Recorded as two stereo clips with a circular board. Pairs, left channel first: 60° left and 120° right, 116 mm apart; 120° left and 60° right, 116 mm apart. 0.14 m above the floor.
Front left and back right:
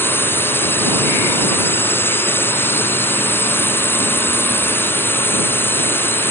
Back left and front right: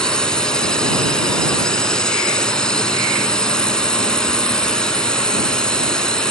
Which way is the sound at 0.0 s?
50° left.